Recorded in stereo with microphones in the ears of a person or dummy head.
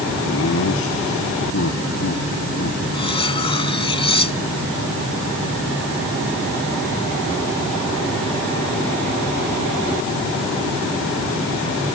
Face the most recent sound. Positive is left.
turn(degrees=30)  # may be behind; listen again after turning